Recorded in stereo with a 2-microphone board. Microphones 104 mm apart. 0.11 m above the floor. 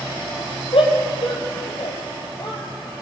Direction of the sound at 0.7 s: 65° left (ahead or behind).